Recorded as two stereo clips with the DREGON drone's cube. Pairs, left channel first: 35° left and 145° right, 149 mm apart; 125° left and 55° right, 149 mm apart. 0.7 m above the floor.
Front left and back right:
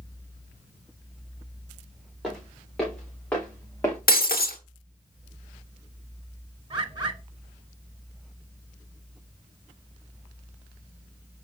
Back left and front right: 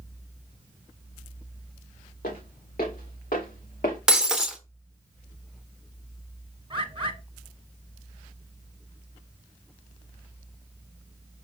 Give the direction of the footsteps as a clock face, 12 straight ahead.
8 o'clock.